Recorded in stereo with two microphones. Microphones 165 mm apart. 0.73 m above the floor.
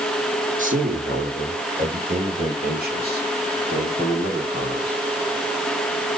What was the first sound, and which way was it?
A man speaking, 50° right (ahead or behind).